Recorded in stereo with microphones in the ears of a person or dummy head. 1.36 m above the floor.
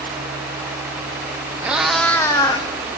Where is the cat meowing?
10° right (ahead or behind), 1.0 m; by 2.7 s 25° left (ahead or behind), 1.4 m.